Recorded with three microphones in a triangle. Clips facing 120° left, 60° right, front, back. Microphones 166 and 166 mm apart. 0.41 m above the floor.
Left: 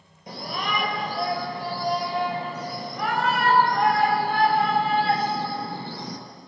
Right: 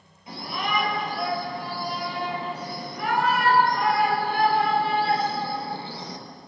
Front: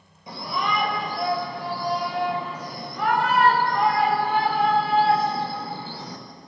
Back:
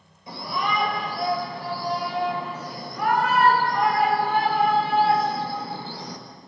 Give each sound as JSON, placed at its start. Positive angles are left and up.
{"t": 0.3, "sound": "a shout", "azimuth_deg": 70, "distance_m": 8.5}